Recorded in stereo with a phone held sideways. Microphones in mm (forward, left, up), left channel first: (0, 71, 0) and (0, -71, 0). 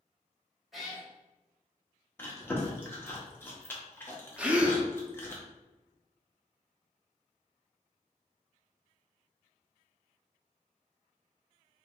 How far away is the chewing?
About 0.7 m.